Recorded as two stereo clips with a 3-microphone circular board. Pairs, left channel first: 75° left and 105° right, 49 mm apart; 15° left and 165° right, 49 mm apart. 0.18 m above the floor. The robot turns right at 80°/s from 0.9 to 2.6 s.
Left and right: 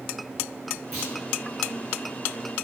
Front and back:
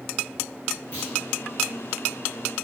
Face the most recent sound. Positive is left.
turn(degrees=85)